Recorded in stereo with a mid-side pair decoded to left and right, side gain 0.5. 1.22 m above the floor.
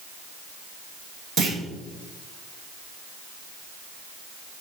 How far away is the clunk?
About 1.4 m.